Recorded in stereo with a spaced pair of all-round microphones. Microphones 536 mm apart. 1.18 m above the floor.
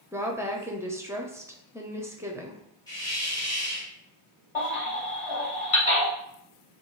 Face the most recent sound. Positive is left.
turn(degrees=65)  # may be behind; listen again after turning